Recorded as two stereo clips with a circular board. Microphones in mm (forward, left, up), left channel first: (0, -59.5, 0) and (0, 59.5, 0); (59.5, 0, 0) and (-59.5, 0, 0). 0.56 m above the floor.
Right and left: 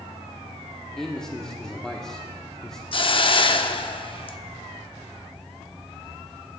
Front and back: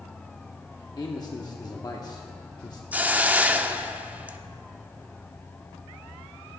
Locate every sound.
1.0 s a man speaking: 10° right, 0.9 m
2.9 s a hiss: 105° right, 0.5 m